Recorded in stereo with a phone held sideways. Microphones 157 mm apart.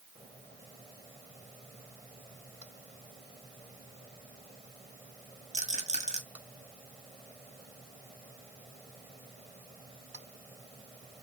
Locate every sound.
5.5 s a rattle: 45° right (ahead or behind), 1.5 m